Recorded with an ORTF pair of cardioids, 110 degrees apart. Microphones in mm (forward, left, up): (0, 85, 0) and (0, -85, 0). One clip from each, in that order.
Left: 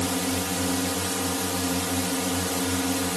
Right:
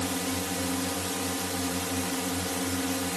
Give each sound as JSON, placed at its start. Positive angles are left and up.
{"t": 0.0, "sound": "a drone", "azimuth_deg": 30}